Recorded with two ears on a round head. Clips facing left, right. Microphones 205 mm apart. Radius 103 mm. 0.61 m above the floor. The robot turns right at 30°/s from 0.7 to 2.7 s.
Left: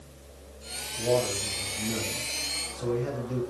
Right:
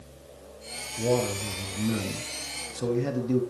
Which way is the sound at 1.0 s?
120° right.